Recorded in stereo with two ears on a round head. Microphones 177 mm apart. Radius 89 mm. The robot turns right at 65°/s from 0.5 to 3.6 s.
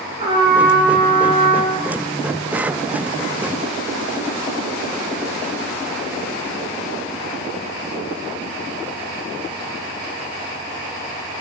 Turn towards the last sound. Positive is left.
turn(degrees=180)